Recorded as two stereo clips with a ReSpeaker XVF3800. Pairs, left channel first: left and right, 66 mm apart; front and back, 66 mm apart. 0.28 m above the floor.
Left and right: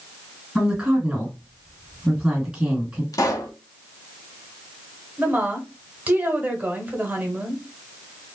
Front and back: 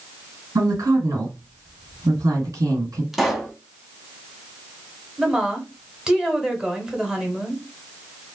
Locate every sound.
0.6 s a woman speaking: 160° right, 2 m
3.1 s a pop: 95° left, 0.7 m
5.2 s a woman speaking: 115° right, 1.0 m